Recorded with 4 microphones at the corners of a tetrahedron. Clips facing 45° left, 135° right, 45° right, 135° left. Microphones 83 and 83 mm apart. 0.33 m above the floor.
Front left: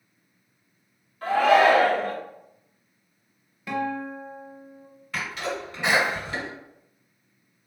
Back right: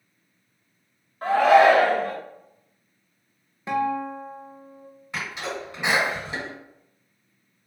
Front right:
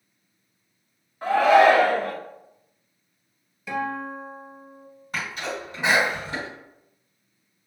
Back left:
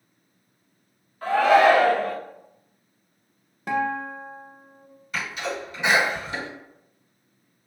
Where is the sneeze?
70° right, 2.0 m.